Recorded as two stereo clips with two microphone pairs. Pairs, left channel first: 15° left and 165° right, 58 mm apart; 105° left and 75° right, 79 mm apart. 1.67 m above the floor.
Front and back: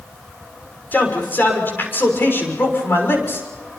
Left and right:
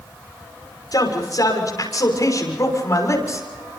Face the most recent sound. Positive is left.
turn(degrees=55)